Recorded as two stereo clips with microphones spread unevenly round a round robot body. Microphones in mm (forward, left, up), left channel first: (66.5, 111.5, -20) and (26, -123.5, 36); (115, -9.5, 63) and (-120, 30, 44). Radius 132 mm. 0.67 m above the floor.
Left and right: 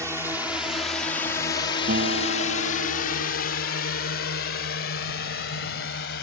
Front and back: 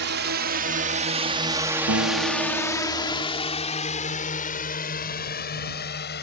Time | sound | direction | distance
0.0 | a drone | 175° left | ?
1.9 | a guitar | 155° right | ?